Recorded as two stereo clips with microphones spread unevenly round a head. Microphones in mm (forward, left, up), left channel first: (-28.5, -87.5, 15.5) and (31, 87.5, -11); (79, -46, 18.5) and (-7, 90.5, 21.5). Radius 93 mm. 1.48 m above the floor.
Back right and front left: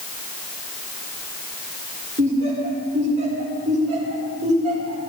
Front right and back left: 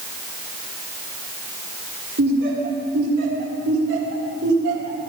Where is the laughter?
125° left, 5.5 m.